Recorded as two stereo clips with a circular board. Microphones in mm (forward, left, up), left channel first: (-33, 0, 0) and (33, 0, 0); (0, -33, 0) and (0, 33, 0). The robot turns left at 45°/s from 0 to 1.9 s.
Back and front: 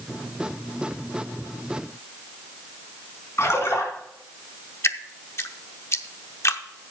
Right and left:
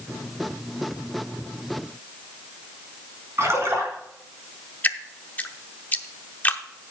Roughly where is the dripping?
Behind right.